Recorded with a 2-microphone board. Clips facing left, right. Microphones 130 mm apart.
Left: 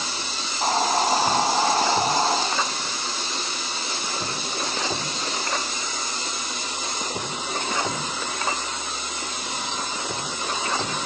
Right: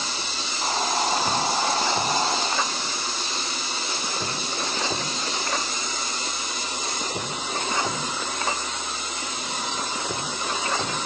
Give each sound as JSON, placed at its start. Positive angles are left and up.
{"t": 0.4, "sound": "a hiss", "side_deg": 40, "distance_m": 1.6}